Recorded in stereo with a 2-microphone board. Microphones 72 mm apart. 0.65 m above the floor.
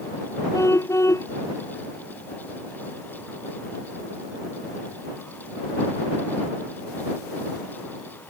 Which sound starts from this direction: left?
A car horn, at 0.5 s.